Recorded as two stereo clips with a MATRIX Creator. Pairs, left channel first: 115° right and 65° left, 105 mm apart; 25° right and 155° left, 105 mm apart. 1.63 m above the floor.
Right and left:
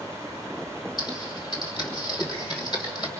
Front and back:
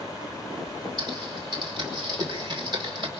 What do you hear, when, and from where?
1.0 s typing on a keyboard: 160° right, 3 m